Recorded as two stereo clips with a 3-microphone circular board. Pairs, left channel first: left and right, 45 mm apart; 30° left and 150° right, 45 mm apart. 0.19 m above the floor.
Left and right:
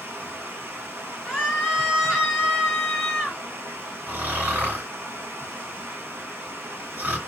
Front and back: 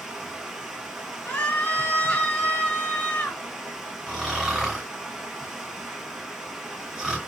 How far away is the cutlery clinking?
No cutlery clinking in this recording.